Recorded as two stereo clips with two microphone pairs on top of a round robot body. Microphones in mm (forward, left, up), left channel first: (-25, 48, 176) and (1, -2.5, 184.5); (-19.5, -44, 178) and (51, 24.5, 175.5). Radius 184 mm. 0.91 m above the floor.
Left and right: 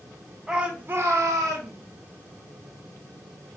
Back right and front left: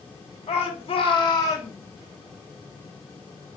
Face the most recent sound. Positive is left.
turn(degrees=-75)